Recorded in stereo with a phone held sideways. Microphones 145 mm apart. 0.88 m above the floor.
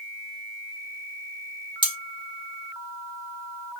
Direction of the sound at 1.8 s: 35° right (ahead or behind).